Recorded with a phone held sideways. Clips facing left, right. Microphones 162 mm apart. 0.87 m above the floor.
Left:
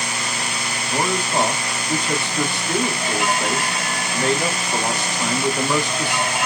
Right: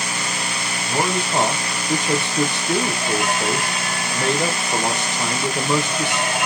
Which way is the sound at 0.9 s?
20° right (ahead or behind).